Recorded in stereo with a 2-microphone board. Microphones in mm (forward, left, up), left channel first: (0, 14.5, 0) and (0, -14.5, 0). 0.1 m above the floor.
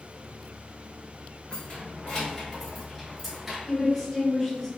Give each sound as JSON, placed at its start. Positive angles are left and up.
{"t": 1.5, "sound": "keys jangling", "side_deg": 40, "distance_m": 1.4}
{"t": 3.6, "sound": "a woman speaking", "side_deg": 15, "distance_m": 1.4}